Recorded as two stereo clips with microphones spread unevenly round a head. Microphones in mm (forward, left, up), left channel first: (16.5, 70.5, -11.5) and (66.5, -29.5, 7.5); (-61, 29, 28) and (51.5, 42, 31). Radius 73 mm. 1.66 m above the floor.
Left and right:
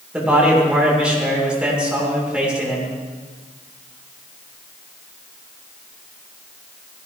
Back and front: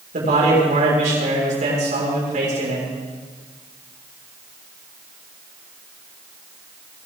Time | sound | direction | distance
0.1 | a man speaking | 15° left | 6 m